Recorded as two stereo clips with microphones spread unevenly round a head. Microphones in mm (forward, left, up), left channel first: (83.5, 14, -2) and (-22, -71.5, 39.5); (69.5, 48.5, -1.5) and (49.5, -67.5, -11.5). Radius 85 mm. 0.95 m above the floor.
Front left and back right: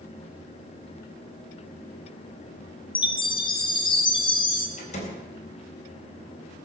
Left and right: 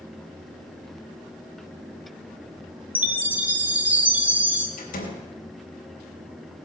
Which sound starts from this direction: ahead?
A chime, at 3.0 s.